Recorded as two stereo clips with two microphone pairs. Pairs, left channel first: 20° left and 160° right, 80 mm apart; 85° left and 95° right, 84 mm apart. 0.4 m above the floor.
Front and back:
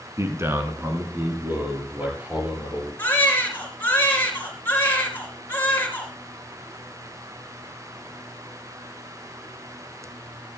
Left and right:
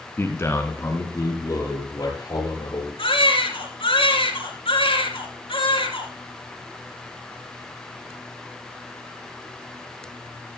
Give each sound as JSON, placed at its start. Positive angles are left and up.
{"t": 0.2, "sound": "a man speaking", "azimuth_deg": 150, "distance_m": 3.0}
{"t": 3.0, "sound": "a baby crying", "azimuth_deg": 90, "distance_m": 3.5}